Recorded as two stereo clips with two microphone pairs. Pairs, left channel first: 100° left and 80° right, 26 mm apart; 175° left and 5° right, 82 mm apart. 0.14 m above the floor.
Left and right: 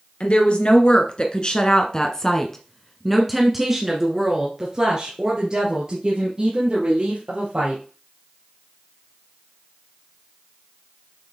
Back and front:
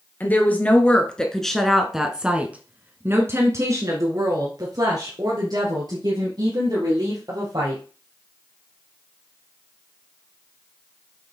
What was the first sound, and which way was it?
A woman speaking, 110° left.